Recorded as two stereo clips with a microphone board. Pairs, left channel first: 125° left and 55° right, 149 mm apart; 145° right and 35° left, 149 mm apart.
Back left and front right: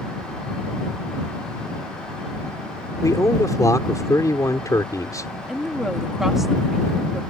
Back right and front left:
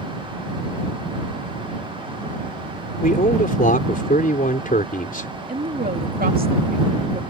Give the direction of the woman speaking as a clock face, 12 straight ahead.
11 o'clock.